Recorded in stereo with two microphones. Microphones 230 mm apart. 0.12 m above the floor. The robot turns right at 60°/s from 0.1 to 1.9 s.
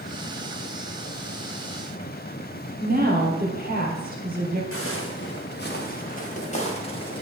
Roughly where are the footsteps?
Left.